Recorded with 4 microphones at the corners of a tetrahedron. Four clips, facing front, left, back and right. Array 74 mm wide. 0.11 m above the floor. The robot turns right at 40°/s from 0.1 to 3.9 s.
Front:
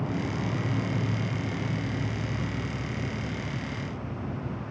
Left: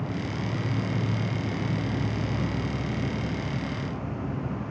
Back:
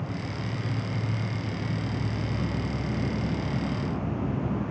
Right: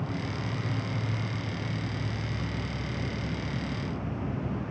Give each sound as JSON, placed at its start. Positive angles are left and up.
{"t": 0.0, "sound": "an insect", "azimuth_deg": 20, "distance_m": 0.8}